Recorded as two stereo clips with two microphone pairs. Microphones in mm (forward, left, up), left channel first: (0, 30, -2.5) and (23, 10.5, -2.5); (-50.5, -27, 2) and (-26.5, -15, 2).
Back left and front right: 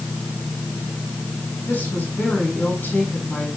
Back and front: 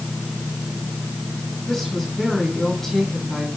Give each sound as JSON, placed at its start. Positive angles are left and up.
{"t": 1.7, "sound": "a woman speaking", "azimuth_deg": 130, "distance_m": 5.5}